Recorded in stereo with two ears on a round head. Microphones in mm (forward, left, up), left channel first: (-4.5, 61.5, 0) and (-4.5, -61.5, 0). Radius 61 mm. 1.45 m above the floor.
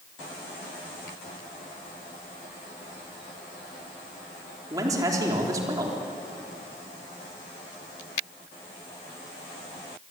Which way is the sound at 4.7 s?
25° right (ahead or behind).